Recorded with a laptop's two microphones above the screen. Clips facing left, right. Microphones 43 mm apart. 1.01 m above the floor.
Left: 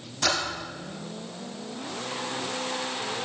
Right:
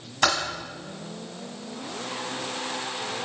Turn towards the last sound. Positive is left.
turn(degrees=-65)  # may be behind; listen again after turning